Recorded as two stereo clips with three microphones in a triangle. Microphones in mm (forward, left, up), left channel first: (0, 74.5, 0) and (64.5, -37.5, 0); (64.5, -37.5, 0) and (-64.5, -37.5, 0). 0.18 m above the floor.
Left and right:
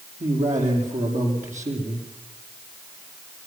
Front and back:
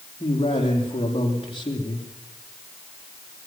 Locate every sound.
0.2 s a man speaking: 45° right, 7.5 m